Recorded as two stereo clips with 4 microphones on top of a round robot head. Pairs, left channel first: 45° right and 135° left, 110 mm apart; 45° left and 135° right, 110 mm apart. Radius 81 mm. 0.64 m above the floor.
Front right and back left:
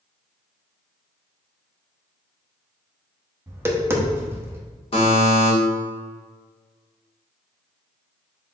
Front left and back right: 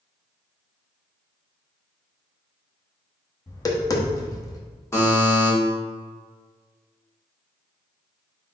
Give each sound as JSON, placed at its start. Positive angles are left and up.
{"t": 3.5, "sound": "tapping", "azimuth_deg": 80, "distance_m": 0.8}
{"t": 4.9, "sound": "a buzzer", "azimuth_deg": -20, "distance_m": 1.5}